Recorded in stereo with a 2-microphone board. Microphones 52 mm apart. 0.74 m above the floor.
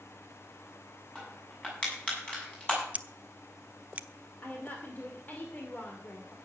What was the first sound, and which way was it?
Crushing, 20° left (ahead or behind).